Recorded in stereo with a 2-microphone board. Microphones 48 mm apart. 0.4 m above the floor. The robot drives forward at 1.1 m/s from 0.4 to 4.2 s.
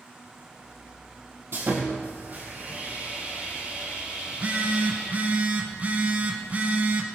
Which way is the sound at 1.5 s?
55° right (ahead or behind).